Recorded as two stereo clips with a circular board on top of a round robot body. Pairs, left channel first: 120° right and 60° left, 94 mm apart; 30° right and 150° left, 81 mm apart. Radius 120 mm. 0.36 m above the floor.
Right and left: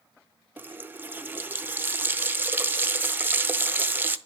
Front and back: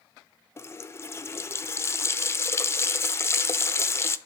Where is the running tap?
5° left, 0.6 m.